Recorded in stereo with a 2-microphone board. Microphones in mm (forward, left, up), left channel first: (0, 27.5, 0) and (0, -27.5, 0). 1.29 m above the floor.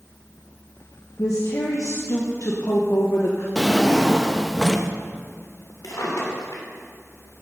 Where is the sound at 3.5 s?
5° left (ahead or behind), 0.7 m.